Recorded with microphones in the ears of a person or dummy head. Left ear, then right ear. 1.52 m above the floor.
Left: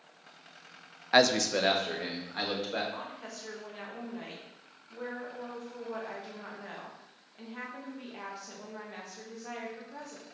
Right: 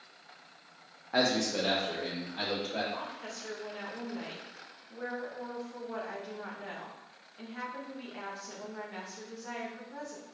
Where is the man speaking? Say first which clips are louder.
Left 5 dB; 55° left (ahead or behind), 0.6 m.